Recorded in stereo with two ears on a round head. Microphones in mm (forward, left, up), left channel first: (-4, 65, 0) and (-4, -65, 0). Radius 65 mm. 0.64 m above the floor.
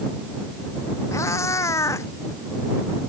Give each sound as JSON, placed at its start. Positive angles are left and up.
{"t": 1.1, "sound": "a cat meowing", "side_deg": 20}